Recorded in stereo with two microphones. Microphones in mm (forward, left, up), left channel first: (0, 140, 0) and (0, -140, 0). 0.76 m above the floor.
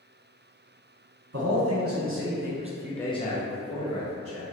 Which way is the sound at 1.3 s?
60° right (ahead or behind).